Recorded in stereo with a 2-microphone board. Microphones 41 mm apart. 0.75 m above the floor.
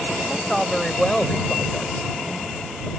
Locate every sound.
0.3 s a woman speaking: centre (ahead or behind); by 2.9 s 65° left (ahead or behind)